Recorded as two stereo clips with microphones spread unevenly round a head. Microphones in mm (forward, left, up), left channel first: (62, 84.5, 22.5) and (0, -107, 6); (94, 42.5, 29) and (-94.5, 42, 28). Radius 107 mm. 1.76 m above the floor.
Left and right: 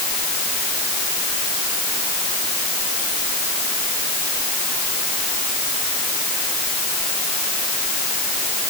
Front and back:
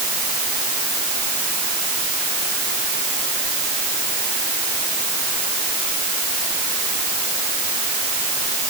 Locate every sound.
Only background noise.